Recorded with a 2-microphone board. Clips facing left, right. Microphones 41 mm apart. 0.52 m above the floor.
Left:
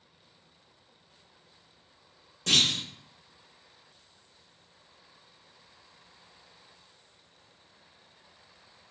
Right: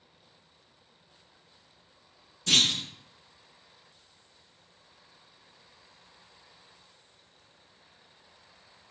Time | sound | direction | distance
2.5 | a clunk | 75° left (ahead or behind) | 1.4 m